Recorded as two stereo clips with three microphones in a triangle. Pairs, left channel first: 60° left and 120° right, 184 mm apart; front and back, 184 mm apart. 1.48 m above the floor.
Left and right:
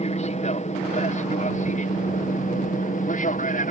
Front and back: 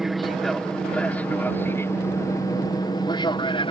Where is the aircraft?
90° left; by 3.7 s 50° left.